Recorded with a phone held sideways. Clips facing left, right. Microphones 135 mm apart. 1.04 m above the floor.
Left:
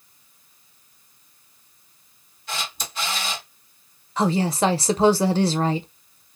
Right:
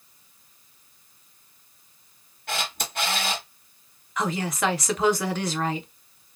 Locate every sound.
2.5 s a camera shutter: 60° right (ahead or behind), 1.4 m
4.2 s a woman speaking: 30° left (ahead or behind), 0.6 m